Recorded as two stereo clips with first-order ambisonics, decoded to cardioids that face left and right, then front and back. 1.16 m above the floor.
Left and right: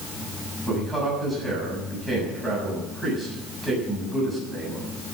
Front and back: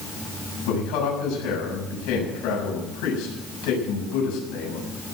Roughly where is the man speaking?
Ahead.